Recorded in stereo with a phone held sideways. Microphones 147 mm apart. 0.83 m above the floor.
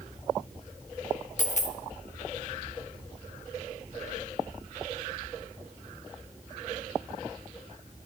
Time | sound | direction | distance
1.4 | a dropped coin | 55° left (ahead or behind) | 0.8 m